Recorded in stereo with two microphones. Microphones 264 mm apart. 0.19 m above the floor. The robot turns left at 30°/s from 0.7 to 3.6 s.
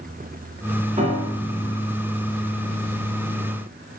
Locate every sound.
1.0 s a piano: 30° right (ahead or behind), 2.0 m; by 1.8 s 10° right (ahead or behind), 2.0 m